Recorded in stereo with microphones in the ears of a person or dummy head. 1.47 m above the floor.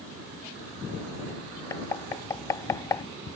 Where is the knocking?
20° left (ahead or behind).